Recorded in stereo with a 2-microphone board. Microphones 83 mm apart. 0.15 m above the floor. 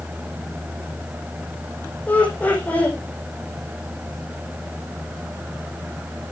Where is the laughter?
20° left (ahead or behind), 6 m.